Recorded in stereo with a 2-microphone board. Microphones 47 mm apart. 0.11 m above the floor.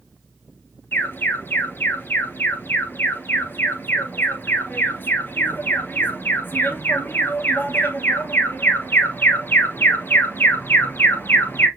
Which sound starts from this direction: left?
An alarm, at 0.9 s.